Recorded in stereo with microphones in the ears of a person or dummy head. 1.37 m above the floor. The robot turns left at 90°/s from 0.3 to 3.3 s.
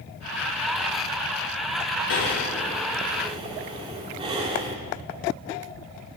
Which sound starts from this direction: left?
Breathing, at 2.1 s.